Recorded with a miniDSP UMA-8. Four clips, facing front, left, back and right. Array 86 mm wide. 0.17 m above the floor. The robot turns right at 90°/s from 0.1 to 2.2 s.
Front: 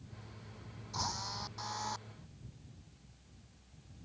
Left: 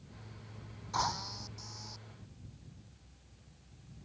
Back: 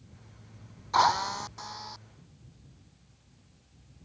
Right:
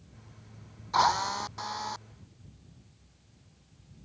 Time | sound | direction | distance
0.9 | a drill | 155° right | ?